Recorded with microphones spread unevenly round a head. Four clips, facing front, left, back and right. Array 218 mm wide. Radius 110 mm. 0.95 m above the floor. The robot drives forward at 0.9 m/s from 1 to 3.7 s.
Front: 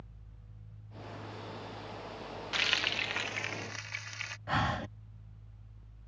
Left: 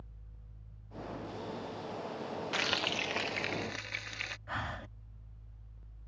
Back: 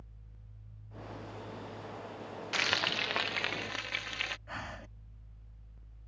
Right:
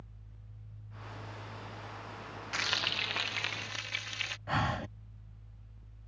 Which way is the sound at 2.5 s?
120° left.